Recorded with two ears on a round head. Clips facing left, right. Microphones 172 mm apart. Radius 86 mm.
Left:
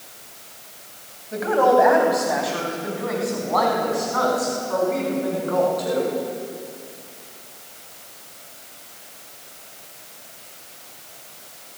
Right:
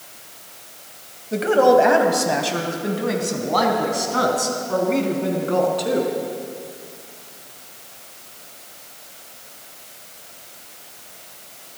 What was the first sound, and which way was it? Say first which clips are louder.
A woman speaking: right 3 dB; 35° right (ahead or behind).